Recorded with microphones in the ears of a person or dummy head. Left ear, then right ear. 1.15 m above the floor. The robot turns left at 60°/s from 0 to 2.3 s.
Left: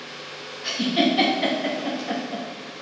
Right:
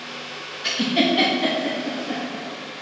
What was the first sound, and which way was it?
A giggle, 30° right (ahead or behind).